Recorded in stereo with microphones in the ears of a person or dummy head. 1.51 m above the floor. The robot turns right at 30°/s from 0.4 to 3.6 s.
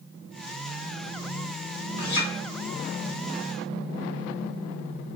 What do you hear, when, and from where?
2.0 s a clink: 55° left (ahead or behind), 1.4 m; by 2.3 s 65° left (ahead or behind), 1.4 m